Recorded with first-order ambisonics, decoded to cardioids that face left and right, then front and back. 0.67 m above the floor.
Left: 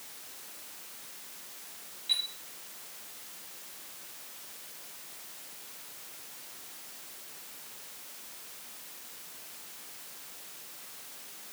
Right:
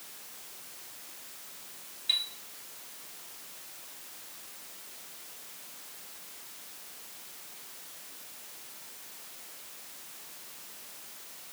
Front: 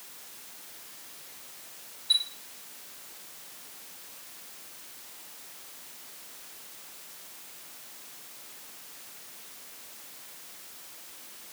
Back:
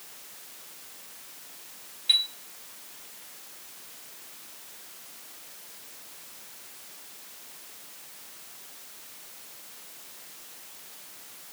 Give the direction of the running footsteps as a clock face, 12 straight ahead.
I don't hear running footsteps.